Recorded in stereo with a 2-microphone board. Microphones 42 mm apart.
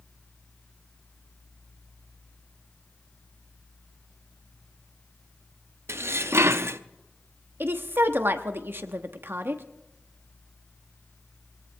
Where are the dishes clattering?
65° right (ahead or behind), 0.6 m.